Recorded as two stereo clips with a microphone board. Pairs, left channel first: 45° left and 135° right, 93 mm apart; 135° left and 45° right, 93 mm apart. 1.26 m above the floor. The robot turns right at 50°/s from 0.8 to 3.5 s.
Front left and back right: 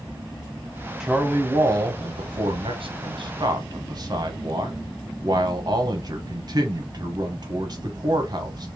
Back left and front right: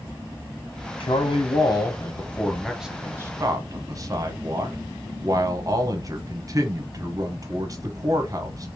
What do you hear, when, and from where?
1.0 s a man speaking: 140° left, 1.0 m; by 8.7 s 95° right, 1.0 m